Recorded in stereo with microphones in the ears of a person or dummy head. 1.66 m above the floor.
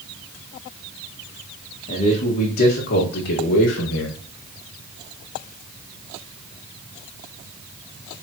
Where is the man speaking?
40° left (ahead or behind), 2 m; by 4.2 s 80° left, 1.5 m.